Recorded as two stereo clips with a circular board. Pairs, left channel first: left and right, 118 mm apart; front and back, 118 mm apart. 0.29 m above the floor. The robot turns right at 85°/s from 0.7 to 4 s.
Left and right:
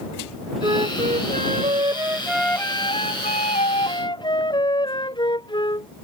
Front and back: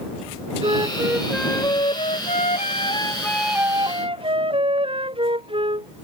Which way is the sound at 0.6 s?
140° right.